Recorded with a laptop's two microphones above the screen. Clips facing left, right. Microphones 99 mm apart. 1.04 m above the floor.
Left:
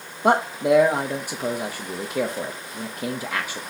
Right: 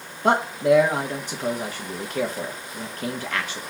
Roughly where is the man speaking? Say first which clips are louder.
Even; centre.